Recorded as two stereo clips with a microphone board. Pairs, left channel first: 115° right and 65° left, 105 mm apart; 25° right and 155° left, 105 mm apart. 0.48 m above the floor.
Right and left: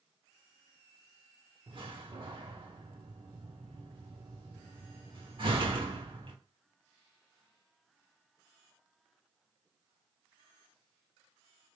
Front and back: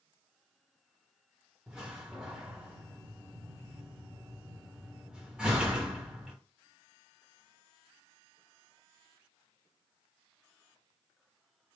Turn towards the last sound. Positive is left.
turn(degrees=80)